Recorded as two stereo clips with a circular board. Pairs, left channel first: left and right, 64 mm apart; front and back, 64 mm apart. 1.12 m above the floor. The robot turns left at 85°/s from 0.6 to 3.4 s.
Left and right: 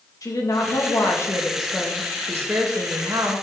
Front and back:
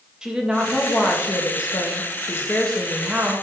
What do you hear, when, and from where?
0.2 s a woman speaking: 105° left, 1.7 m; by 3.4 s 135° right, 1.7 m